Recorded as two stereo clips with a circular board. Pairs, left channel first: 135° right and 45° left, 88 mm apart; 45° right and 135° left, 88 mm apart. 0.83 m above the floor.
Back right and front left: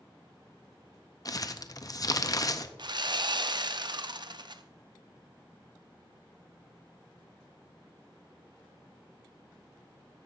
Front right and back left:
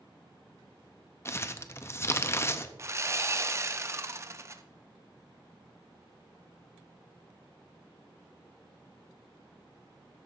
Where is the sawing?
75° left, 0.6 m.